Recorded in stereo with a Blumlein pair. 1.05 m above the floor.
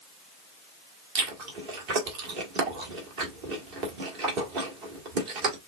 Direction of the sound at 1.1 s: 45° right.